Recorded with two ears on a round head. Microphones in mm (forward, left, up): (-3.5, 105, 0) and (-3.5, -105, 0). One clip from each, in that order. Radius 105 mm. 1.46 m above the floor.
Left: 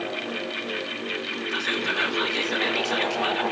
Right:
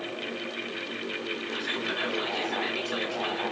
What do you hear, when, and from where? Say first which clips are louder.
1.5 s whispering: left 7 dB; 55° left (ahead or behind), 1.7 m